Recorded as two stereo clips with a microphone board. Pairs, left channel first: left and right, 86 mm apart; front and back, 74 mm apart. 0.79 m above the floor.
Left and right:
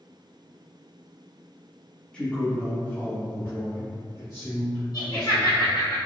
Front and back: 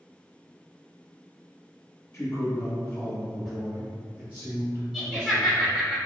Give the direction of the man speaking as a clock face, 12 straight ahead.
11 o'clock.